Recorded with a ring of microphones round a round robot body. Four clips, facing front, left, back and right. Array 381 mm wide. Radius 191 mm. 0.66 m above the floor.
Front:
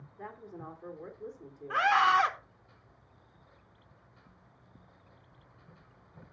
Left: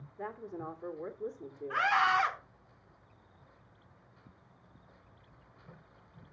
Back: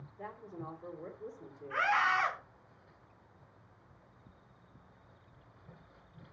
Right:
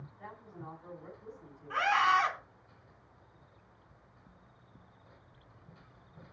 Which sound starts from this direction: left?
A woman speaking, at 0.2 s.